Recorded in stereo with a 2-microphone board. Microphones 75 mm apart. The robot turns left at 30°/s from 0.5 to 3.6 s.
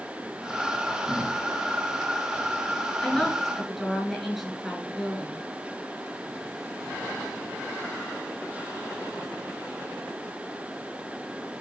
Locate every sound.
3.0 s a woman speaking: 10° left (ahead or behind), 5.5 m; by 5.5 s 5° right (ahead or behind), 5.5 m